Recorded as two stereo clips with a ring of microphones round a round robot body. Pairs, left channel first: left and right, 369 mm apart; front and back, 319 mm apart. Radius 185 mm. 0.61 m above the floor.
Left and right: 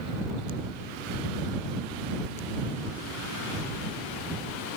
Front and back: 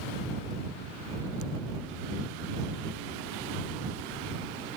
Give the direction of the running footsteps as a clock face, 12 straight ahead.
No running footsteps in this recording.